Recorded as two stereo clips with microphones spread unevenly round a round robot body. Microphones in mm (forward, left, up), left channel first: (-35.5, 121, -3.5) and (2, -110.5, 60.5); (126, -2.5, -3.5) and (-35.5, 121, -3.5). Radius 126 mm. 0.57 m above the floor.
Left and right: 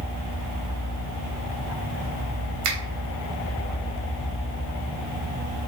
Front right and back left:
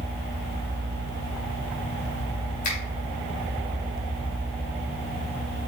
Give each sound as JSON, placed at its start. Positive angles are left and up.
{"t": 2.6, "sound": "a finger snap", "azimuth_deg": -100, "distance_m": 3.0}